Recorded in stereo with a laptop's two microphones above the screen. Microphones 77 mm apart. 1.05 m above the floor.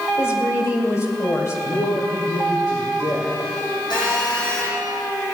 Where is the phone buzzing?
85° left, 7.5 m.